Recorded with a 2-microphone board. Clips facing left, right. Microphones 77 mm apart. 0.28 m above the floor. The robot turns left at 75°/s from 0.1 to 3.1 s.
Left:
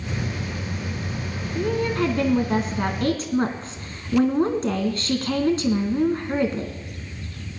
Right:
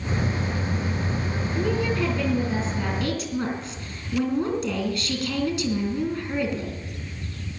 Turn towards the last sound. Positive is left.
turn(degrees=40)